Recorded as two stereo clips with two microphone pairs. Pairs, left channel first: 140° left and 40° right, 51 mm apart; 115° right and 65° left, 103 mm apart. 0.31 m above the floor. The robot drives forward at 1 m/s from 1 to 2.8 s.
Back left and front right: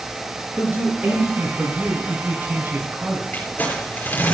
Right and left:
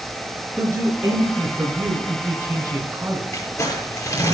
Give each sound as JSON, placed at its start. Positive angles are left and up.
{"t": 0.6, "sound": "a man speaking", "azimuth_deg": 0, "distance_m": 6.0}
{"t": 3.3, "sound": "crumpling", "azimuth_deg": -170, "distance_m": 6.0}